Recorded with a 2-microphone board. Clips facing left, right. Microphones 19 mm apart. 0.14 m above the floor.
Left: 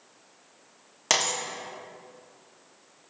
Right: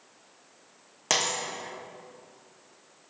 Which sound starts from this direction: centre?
A dropped coin, at 1.1 s.